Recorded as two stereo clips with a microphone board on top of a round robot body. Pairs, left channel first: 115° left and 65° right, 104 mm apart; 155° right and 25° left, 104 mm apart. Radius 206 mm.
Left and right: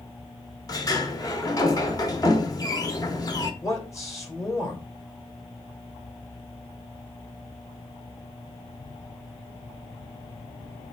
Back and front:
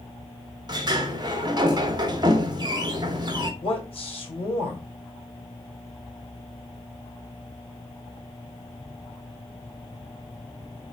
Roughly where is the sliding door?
Ahead left.